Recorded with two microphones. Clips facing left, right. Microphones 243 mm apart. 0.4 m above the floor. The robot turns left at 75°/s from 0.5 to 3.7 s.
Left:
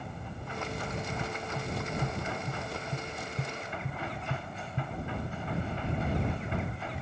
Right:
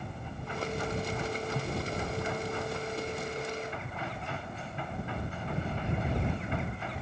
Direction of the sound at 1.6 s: 15° right (ahead or behind).